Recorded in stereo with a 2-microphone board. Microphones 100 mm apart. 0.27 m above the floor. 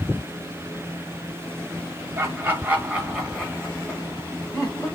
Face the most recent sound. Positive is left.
turn(degrees=35)  # may be behind; listen again after turning